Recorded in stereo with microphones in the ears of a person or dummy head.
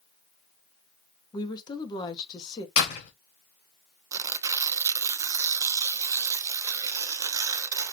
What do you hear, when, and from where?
1.3 s a woman speaking: 25° left (ahead or behind), 1.1 m
2.8 s a door slam: 55° left (ahead or behind), 2 m
4.1 s tearing paper: 15° right (ahead or behind), 0.5 m